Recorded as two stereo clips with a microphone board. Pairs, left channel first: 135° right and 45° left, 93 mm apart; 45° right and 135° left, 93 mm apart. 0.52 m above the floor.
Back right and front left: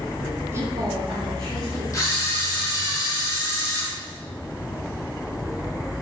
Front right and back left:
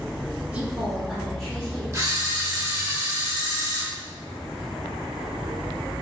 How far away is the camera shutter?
About 0.9 m.